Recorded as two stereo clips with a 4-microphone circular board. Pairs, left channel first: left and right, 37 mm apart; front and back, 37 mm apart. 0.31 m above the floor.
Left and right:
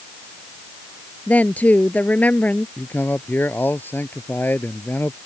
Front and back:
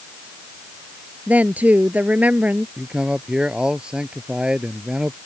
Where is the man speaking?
115° left.